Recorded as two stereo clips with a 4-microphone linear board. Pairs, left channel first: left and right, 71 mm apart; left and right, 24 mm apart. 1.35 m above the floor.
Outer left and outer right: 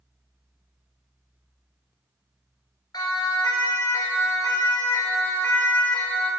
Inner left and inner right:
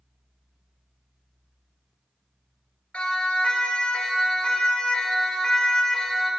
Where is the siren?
80° left, 4 m; by 6.3 s 25° left (ahead or behind), 5 m.